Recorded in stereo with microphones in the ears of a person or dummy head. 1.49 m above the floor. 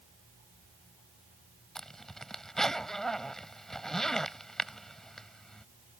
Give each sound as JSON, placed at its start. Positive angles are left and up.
{"t": 1.8, "sound": "a zipper", "side_deg": 0}